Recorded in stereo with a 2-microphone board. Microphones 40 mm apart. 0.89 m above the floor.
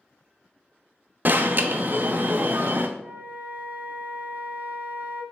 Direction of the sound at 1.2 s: 45° right (ahead or behind).